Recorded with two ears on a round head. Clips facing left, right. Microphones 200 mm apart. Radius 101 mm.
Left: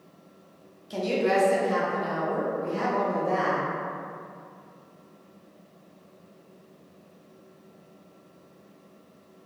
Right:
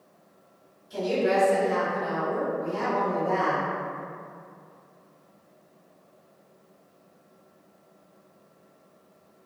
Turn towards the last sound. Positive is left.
turn(degrees=30)  # may be behind; listen again after turning